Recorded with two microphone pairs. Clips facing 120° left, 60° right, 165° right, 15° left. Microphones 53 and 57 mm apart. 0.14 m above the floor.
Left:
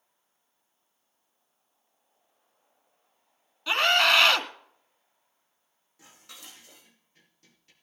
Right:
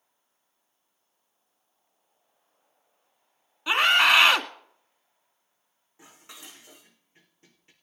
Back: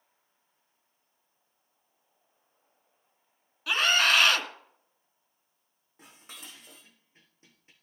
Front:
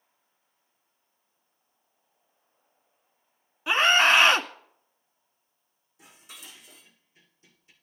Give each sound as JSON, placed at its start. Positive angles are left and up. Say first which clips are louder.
{"t": 3.7, "sound": "a scream", "louder": "right 2 dB, front 4 dB", "azimuth_deg": -10, "distance_m": 1.7}
{"t": 6.0, "sound": "dishes clattering", "louder": "right 2 dB, even", "azimuth_deg": -120, "distance_m": 4.5}